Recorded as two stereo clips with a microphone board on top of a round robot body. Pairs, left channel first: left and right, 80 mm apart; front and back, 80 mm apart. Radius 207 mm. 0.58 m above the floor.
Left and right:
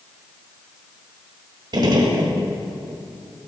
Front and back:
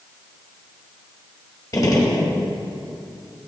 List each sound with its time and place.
1.7 s a gunshot: 50° right, 1.3 m